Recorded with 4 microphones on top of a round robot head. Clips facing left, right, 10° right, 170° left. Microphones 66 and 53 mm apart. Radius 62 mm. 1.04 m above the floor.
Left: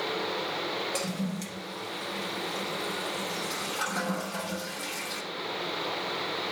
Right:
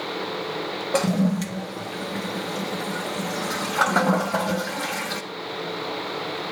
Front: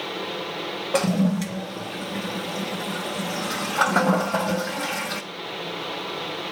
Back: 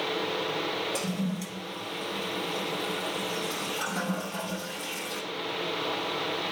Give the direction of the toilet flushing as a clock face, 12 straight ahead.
2 o'clock.